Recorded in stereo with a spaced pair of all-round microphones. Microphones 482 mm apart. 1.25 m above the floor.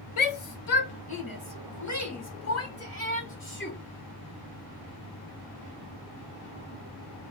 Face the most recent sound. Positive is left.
turn(degrees=25)  # may be behind; listen again after turning